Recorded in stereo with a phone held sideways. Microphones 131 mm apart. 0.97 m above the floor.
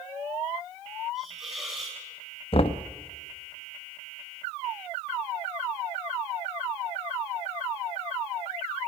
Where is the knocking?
45° left (ahead or behind), 0.9 m.